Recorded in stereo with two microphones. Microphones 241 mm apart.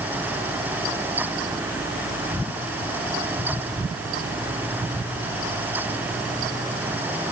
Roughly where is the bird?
I don't hear a bird.